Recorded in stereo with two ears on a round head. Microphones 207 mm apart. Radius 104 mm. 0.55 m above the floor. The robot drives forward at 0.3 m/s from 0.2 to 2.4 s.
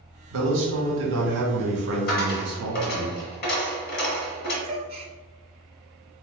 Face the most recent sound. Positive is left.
turn(degrees=-25)  # may be behind; listen again after turning